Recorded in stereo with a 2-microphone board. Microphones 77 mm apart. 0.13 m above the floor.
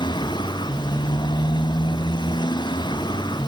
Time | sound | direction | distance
0.0 | a motorcycle | 80° left | ?